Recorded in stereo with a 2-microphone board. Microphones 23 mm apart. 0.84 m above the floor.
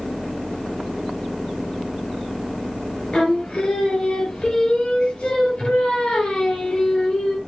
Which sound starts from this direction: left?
Singing, at 3.1 s.